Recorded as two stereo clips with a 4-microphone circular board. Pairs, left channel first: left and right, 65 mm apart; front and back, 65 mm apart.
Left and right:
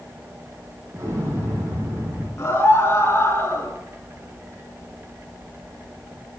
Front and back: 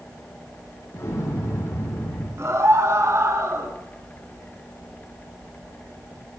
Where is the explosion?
40° right, 7.5 m.